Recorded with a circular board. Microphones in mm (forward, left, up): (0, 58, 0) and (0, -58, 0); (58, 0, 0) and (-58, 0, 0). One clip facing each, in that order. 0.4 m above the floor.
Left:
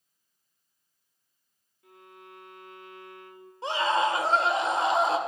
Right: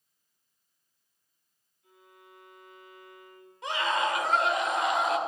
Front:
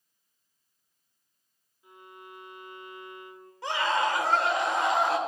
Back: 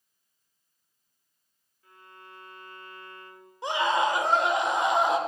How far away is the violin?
About 1.0 m.